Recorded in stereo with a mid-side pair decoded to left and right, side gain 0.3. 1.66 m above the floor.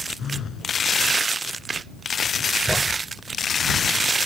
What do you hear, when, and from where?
0.2 s a phone buzzing: 65° left
2.7 s a thud: 10° left